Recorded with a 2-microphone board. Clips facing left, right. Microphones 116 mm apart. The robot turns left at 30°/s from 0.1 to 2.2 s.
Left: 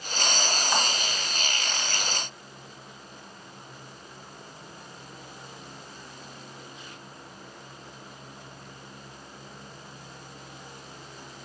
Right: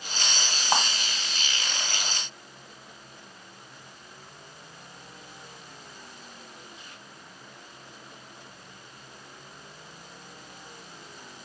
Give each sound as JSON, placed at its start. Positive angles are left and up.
{"t": 0.7, "sound": "a clap", "side_deg": -50, "distance_m": 2.5}